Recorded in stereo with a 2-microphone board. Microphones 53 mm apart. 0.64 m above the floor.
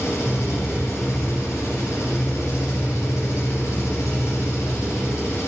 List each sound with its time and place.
0.0 s an engine running: 75° left (ahead or behind), 3.5 m